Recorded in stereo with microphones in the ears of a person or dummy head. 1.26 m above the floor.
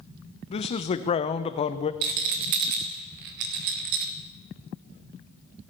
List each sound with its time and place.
0.5 s a man speaking: 25° left (ahead or behind), 0.5 m
2.0 s a rattle: 45° right (ahead or behind), 0.6 m